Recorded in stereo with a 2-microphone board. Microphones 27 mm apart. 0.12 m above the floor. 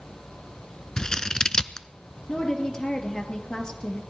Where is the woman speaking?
30° left (ahead or behind), 2.5 m.